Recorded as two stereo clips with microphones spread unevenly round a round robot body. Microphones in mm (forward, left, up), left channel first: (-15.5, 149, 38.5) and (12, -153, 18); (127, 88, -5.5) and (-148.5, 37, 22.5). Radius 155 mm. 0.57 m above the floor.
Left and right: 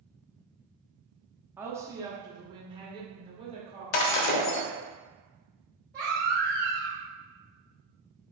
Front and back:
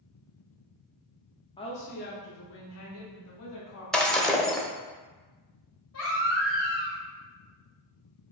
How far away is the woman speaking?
About 0.7 m.